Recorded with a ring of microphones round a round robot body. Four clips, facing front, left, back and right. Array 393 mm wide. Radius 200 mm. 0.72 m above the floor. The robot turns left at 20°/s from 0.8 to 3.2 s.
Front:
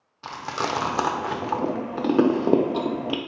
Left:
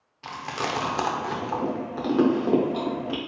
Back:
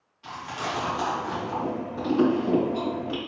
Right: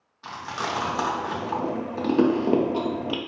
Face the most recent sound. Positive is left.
turn(degrees=-30)